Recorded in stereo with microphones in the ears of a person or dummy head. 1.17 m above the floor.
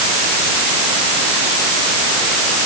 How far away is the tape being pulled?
No tape being pulled in this recording.